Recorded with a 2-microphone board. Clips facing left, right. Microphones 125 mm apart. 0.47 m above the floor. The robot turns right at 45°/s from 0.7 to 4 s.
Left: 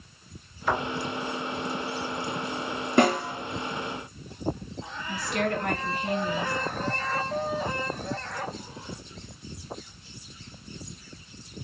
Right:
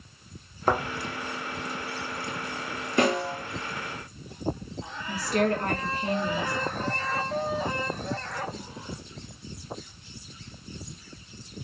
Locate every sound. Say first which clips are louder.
0.7 s a thud: right 2 dB; 45° right (ahead or behind), 0.7 m; by 0.8 s 40° right (ahead or behind), 0.7 m
3.0 s a snare drum: left 2 dB; 60° left (ahead or behind), 2.5 m; by 3.4 s 45° left (ahead or behind), 2.5 m
5.1 s a woman speaking: right 3 dB; 35° right (ahead or behind), 1.6 m